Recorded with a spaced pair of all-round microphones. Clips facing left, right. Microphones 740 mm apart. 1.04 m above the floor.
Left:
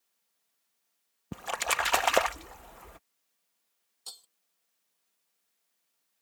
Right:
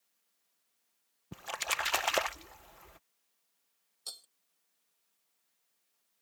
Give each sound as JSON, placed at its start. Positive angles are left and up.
{"t": 1.3, "sound": "a splash", "side_deg": 80}
{"t": 4.1, "sound": "breaking glass", "side_deg": 30}